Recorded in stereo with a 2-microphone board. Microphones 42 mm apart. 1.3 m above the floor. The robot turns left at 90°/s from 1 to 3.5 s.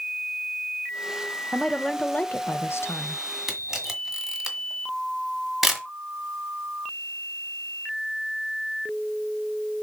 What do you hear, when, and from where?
1.5 s a woman speaking: 155° right, 1.0 m; by 3.2 s 55° left, 1.0 m
3.5 s a camera shutter: 10° right (ahead or behind), 1.7 m